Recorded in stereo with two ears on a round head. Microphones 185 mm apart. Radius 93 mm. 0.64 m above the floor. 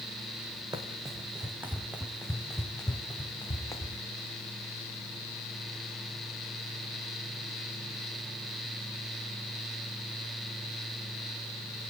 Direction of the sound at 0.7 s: 20° right (ahead or behind).